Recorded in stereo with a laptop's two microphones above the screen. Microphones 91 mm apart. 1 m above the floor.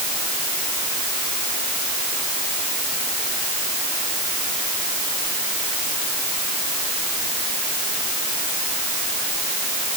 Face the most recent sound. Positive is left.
No sound to turn to.